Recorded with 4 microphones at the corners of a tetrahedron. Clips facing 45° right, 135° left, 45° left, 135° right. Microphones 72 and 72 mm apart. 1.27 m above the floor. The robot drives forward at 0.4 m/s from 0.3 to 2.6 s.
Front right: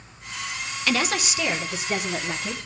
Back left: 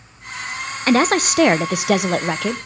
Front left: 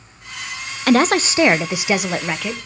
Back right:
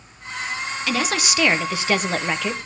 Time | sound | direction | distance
0.9 | a woman speaking | 85° left | 0.6 m